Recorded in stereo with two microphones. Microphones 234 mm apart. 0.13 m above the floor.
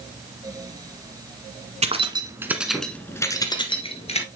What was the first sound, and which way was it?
Keys jangling, 30° right (ahead or behind).